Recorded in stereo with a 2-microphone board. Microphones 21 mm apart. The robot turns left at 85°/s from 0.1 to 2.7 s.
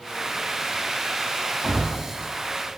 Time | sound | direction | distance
1.6 | a thud | 45° right (ahead or behind) | 0.8 m